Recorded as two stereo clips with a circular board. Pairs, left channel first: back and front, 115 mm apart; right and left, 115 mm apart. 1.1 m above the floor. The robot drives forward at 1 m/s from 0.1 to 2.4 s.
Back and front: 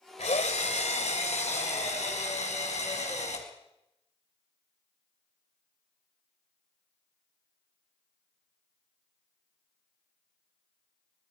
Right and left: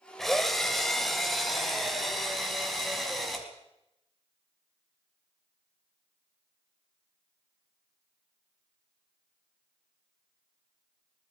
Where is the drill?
175° right, 2.5 m; by 3.5 s straight behind, 4.5 m.